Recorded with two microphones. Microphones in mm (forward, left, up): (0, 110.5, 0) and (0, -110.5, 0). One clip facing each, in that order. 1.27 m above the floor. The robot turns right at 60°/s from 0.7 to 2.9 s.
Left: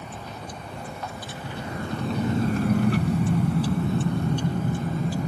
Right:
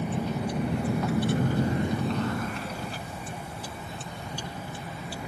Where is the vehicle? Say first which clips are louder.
Right 9 dB; 65° right (ahead or behind); by 5.3 s 40° left (ahead or behind).